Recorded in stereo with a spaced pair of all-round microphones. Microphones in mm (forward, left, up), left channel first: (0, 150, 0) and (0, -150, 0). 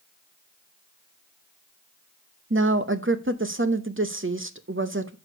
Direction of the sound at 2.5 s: 40° right (ahead or behind).